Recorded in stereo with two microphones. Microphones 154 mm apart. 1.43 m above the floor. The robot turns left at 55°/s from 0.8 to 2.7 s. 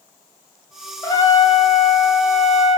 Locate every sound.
1.0 s a trumpet: 155° left, 0.7 m; by 2.8 s 65° left, 0.7 m